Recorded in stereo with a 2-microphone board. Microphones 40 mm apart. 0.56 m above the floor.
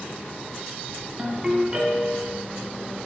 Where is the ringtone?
15° right (ahead or behind), 2.5 m.